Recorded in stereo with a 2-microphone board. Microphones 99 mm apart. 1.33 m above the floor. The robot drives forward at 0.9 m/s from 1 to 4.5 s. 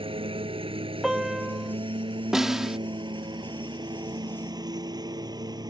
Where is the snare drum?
5° right (ahead or behind).